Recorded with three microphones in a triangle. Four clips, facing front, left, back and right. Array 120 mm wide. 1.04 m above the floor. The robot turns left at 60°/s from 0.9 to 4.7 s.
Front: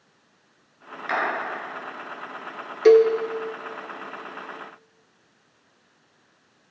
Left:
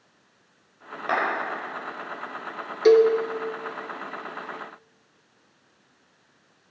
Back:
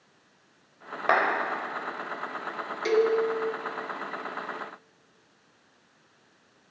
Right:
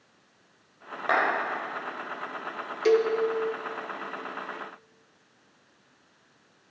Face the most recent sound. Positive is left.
turn(degrees=-90)